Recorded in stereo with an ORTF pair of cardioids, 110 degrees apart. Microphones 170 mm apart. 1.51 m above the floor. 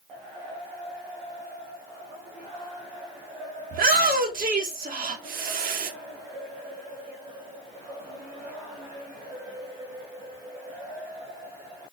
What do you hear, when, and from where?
3.7 s a shout: 55° right, 3 m